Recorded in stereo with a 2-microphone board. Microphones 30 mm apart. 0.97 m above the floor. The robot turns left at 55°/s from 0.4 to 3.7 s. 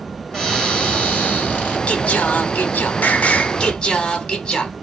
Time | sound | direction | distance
0.3 | a cupboard door | 170° left | 2.5 m
1.9 | singing | 135° left | 0.8 m